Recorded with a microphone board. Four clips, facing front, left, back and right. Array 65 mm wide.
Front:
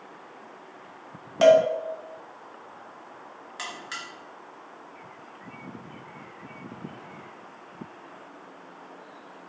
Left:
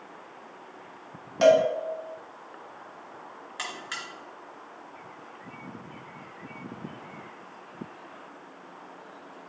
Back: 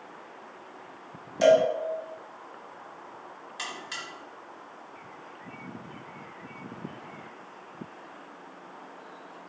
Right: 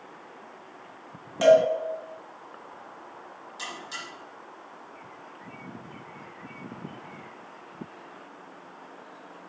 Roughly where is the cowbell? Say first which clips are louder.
Right 1 dB, front 3 dB; ahead.